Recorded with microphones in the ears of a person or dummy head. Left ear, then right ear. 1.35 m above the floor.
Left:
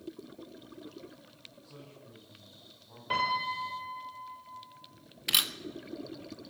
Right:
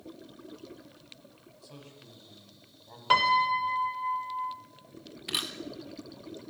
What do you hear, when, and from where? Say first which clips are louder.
1.6 s a man speaking: right 1 dB; 75° right (ahead or behind), 9.5 m
3.1 s a piano: right 7 dB; 55° right (ahead or behind), 3 m
5.3 s a camera shutter: left 5 dB; 15° left (ahead or behind), 1.1 m